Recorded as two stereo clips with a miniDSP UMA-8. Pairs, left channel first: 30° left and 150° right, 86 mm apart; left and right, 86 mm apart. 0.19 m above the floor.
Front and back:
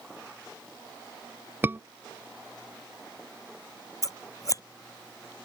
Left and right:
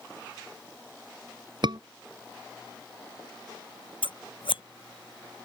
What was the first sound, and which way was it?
A scream, 85° right.